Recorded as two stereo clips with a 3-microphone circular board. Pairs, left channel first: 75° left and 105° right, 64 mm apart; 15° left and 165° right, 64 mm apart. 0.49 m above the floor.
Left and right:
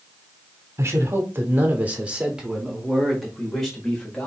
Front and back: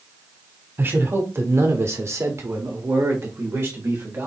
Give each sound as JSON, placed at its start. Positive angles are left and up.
{"t": 0.8, "sound": "a man speaking", "azimuth_deg": -130, "distance_m": 1.3}